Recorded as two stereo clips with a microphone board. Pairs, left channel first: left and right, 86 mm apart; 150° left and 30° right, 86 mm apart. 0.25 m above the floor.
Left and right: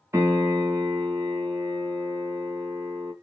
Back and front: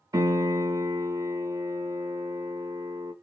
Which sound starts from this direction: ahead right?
A piano, at 0.1 s.